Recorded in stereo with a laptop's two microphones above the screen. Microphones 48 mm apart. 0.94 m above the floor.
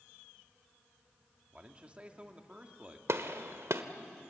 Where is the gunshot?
70° right (ahead or behind), 1.2 m.